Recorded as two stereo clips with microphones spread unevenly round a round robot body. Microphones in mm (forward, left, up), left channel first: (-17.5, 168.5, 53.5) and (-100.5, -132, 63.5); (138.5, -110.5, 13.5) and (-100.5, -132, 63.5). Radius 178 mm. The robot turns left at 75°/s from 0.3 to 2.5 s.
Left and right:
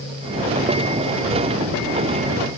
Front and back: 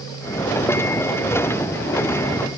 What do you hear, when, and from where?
Only background noise.